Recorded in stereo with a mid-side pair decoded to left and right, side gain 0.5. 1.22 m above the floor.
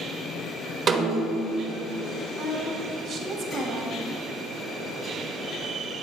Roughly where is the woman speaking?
Ahead right.